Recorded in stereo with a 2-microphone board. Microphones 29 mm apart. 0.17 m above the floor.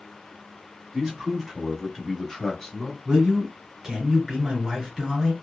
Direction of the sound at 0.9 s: 25° right (ahead or behind).